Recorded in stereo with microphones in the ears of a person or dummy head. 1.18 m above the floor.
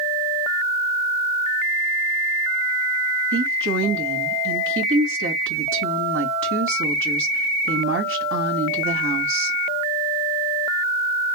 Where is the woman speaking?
60° right (ahead or behind), 1.5 m.